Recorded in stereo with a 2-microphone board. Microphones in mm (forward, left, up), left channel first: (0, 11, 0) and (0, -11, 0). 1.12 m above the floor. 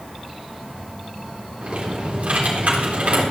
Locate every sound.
1.6 s typing on a keyboard: 70° right (ahead or behind), 3.5 m